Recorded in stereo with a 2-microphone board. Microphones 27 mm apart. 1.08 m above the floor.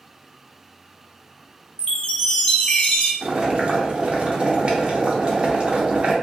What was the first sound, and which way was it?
A chime, 35° left (ahead or behind).